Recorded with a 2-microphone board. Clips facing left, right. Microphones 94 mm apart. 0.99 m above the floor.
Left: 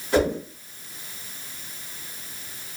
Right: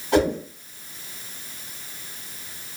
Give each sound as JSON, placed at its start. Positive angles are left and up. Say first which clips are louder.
{"t": 0.1, "sound": "a whoosh", "louder": "right 1 dB", "side_deg": -65, "distance_m": 2.0}